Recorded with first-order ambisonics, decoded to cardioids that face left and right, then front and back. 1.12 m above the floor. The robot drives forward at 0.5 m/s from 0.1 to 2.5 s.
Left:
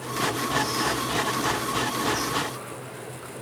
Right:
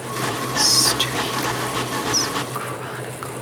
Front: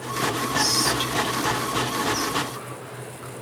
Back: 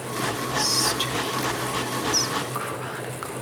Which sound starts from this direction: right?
Whispering, at 0.6 s.